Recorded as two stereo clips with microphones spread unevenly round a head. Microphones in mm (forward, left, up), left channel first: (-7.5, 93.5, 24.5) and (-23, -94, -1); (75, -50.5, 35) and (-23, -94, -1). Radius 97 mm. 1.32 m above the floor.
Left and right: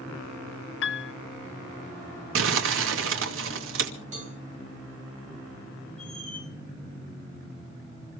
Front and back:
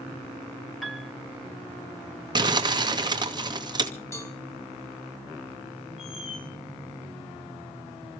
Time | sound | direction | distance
0.8 | a piano | 115° left | 0.7 m
2.4 | crumpling | 110° right | 2.5 m
4.1 | a cowbell | 40° right | 5.5 m
6.0 | a squeak | straight ahead | 9.5 m